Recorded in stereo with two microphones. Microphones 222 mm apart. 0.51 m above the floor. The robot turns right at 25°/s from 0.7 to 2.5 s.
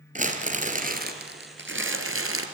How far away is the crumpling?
About 1.9 m.